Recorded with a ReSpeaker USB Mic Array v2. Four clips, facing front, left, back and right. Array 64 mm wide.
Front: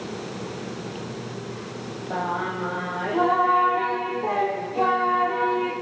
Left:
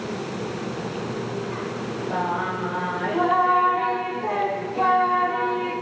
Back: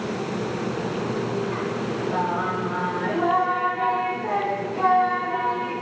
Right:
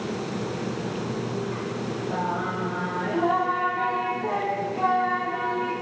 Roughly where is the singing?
Ahead.